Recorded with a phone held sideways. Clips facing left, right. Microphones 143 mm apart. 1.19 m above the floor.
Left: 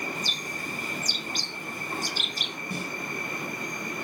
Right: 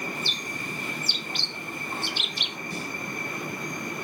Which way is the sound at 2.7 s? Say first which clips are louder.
Left 1 dB; 55° left (ahead or behind).